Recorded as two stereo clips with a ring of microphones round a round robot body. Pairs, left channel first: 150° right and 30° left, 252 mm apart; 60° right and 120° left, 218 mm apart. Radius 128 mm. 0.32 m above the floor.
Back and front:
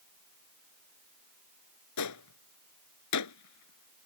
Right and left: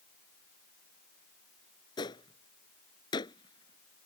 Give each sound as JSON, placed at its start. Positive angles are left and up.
{"t": 2.0, "sound": "a gunshot", "azimuth_deg": -135}